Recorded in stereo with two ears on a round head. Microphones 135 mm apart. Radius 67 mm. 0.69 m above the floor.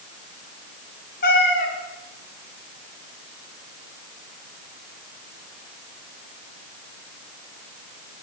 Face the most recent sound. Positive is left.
turn(degrees=65)  # may be behind; listen again after turning